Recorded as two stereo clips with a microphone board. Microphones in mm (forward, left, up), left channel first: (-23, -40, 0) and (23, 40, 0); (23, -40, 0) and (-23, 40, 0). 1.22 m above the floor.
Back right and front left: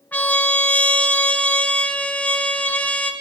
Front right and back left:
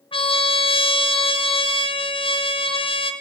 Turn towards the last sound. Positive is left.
turn(degrees=-45)